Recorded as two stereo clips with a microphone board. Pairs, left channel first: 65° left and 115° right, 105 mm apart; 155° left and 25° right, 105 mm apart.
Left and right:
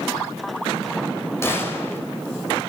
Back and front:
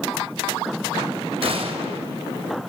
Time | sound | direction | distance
1.4 | a gunshot | straight ahead | 4.5 m